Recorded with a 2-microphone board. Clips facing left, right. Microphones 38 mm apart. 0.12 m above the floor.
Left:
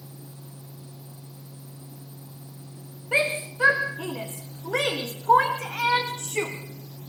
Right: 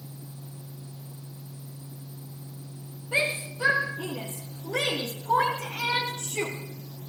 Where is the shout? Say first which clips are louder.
Left 3 dB; 50° left (ahead or behind), 7 m; by 6.5 s 70° left (ahead or behind), 6 m.